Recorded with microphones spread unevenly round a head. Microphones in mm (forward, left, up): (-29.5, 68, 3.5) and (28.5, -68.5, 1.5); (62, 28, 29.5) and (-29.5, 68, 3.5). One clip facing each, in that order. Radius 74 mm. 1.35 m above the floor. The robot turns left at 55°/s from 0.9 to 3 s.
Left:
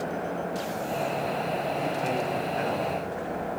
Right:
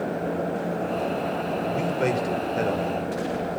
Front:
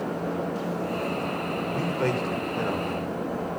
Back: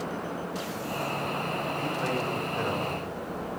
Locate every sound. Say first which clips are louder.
1.7 s a man speaking: right 4 dB, front 4 dB; 50° right, 6 m; by 3.0 s 125° right, 6 m